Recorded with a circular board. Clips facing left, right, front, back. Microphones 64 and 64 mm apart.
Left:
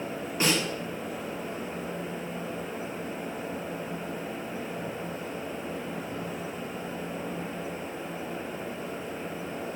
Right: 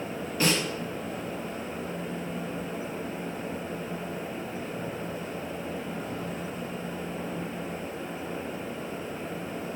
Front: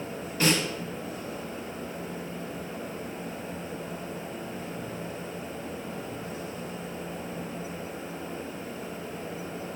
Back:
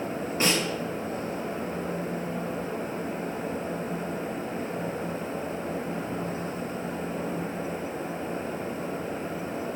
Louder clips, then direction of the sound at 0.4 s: Even, front 1 dB; 135° left.